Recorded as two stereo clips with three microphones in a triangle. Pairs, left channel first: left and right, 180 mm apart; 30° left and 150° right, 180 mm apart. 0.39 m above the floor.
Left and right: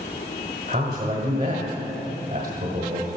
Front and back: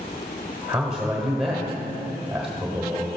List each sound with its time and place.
0.7 s a man speaking: 60° right, 1.4 m